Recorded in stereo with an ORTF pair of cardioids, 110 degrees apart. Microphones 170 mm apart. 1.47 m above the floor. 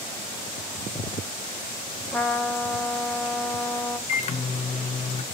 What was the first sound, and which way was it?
A trumpet, 5° left.